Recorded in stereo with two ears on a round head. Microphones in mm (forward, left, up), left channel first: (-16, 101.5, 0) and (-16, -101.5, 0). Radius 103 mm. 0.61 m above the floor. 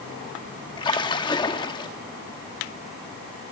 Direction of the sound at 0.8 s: 20° left (ahead or behind).